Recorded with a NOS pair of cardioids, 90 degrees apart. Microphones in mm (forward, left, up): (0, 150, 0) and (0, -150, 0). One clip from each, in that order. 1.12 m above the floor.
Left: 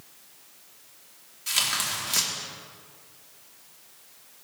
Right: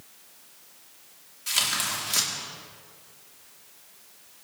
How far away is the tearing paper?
About 2.5 m.